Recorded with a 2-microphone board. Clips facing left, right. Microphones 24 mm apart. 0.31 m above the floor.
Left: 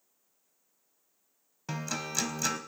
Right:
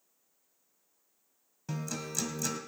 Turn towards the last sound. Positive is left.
turn(degrees=35)  # may be behind; listen again after turning